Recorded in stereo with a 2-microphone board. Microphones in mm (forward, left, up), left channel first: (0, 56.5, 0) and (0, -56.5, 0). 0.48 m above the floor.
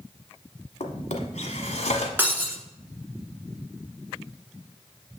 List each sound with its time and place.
0.8 s a drawer: 85° left, 1.2 m
2.2 s breaking glass: 15° right (ahead or behind), 1.2 m